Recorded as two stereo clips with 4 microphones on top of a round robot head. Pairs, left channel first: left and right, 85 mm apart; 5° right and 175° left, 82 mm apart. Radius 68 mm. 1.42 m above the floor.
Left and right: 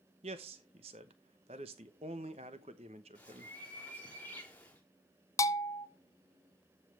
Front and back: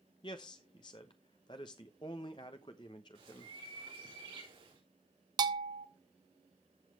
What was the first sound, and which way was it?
A man speaking, 60° right.